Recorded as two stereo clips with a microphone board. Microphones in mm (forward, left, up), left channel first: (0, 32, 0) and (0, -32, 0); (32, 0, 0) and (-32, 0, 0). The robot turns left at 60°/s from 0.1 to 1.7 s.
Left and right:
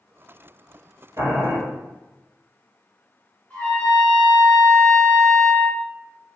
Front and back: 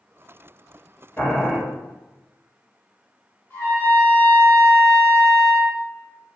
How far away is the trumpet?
About 1.9 m.